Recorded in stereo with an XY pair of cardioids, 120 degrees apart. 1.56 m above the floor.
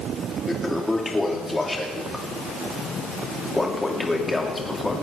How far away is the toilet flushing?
About 2.5 m.